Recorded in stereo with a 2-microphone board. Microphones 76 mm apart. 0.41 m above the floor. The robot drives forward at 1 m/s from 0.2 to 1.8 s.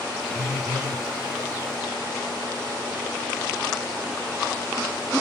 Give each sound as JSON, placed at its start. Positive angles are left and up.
{"t": 0.3, "sound": "a phone buzzing", "side_deg": -45, "distance_m": 5.0}